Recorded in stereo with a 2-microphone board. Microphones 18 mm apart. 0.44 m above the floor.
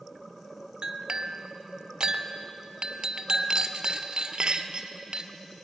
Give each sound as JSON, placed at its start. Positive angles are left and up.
{"t": 0.8, "sound": "a clink", "side_deg": -45, "distance_m": 0.6}